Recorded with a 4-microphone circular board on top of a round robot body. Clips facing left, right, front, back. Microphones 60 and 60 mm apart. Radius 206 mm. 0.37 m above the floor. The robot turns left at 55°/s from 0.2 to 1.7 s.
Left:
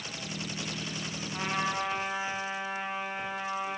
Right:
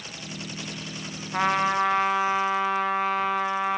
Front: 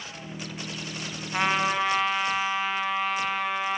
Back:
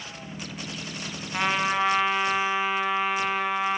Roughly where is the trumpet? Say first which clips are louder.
Right 9 dB, even; right.